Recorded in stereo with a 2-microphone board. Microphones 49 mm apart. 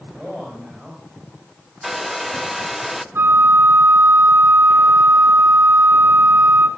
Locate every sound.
0.2 s a man speaking: 10° right (ahead or behind), 5 m
1.8 s a hair dryer: centre (ahead or behind), 0.6 m
3.1 s a flute: 55° right (ahead or behind), 1.3 m